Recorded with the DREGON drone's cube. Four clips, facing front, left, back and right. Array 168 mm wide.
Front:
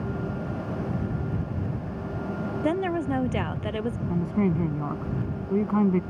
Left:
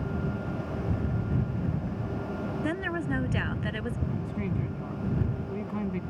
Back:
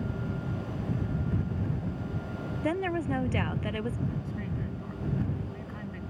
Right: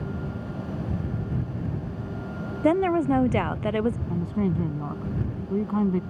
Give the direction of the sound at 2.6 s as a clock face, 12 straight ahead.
3 o'clock.